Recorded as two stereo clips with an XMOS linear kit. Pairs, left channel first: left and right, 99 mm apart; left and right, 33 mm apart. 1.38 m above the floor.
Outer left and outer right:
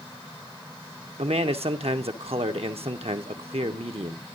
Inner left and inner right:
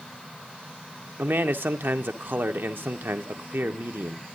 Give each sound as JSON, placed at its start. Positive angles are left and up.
{"t": 1.2, "sound": "a man speaking", "side_deg": -80, "distance_m": 1.0}